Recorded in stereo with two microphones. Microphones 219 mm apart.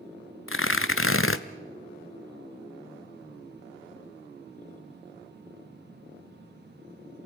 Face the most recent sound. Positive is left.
turn(degrees=70)  # may be behind; listen again after turning